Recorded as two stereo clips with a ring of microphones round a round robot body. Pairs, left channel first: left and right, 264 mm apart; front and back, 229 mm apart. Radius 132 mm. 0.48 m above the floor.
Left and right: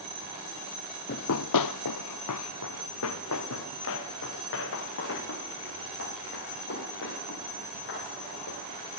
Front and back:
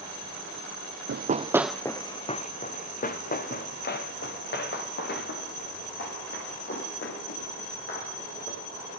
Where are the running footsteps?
145° left, 1.0 m; by 8.9 s 40° left, 12 m.